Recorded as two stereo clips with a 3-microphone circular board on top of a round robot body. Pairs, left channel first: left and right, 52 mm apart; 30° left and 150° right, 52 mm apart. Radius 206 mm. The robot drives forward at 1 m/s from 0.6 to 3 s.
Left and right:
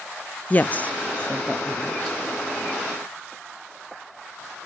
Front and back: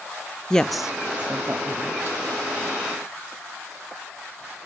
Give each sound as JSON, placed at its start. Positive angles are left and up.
{"t": 0.5, "sound": "a woman speaking", "azimuth_deg": 95, "distance_m": 0.8}